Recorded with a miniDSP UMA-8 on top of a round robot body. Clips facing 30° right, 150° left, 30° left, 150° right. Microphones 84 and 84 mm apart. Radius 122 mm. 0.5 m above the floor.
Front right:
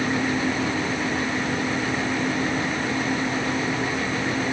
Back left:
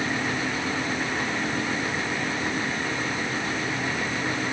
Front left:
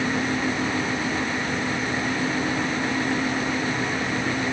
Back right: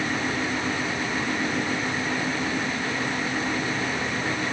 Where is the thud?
I don't hear a thud.